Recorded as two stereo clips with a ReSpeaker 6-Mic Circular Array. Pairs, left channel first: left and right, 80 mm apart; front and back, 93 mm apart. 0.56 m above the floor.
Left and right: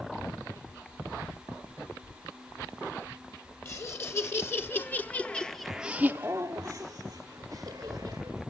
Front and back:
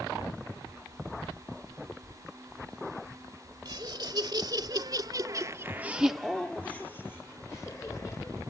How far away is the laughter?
About 1.9 m.